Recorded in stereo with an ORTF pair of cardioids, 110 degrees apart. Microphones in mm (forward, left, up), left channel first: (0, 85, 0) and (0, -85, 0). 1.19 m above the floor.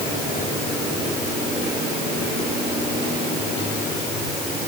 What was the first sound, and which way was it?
Only background noise.